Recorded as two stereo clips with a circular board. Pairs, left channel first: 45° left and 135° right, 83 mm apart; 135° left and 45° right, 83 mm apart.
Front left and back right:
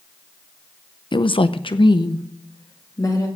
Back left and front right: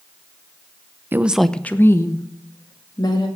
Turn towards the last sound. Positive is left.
turn(degrees=95)